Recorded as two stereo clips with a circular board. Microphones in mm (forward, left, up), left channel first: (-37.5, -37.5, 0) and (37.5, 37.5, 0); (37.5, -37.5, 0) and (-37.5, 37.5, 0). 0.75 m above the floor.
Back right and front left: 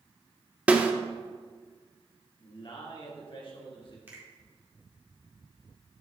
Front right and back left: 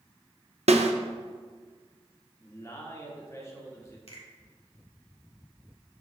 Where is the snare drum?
120° left, 0.6 m.